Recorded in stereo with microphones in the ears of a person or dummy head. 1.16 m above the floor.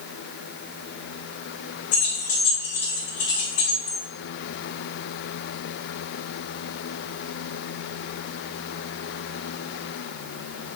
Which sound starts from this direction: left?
Keys jangling, at 1.9 s.